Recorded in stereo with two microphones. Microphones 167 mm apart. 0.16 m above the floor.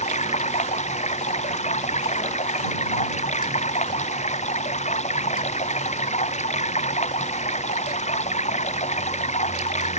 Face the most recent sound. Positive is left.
turn(degrees=45)  # may be behind; listen again after turning